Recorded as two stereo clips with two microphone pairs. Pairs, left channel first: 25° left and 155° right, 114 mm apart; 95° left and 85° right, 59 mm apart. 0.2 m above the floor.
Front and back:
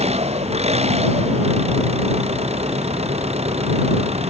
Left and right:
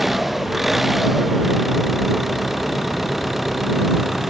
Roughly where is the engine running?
Behind.